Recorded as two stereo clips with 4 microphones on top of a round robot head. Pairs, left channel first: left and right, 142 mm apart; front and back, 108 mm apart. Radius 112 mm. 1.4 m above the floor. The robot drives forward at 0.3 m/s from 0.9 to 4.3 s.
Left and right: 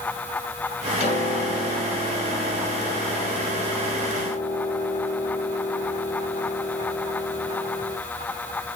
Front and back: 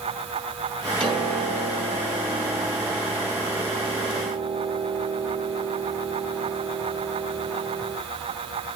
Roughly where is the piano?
Behind left.